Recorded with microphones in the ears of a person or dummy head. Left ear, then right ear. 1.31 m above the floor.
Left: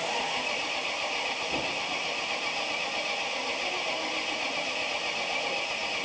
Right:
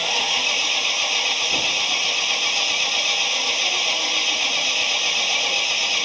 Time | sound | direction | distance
0.0 | an engine running | 80° right | ?